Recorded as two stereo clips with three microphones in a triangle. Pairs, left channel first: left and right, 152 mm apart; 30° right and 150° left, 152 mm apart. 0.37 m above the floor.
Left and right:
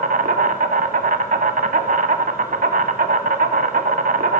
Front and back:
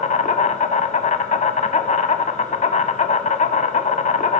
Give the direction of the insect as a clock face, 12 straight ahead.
2 o'clock.